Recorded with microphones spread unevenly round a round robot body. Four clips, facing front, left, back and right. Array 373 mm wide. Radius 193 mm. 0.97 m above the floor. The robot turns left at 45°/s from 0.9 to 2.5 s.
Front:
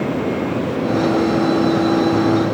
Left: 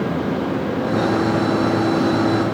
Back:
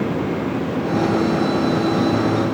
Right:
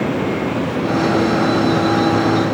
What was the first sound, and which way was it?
Only background noise.